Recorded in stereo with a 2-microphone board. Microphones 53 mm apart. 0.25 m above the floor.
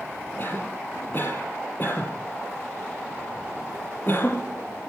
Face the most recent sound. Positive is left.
turn(degrees=40)  # may be behind; listen again after turning